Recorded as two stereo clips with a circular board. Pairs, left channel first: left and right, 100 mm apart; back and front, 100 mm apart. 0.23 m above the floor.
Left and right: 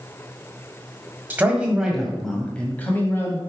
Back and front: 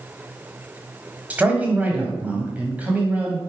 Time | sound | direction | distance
1.3 | a man speaking | 50° right | 1.4 m